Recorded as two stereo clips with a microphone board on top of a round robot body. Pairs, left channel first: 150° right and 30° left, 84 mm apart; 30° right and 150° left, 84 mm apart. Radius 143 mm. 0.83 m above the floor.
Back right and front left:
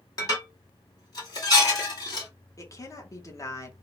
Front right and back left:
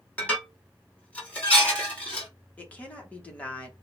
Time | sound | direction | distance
0.2 | dishes clattering | 105° right | 2 m
2.6 | a woman speaking | 105° right | 1.7 m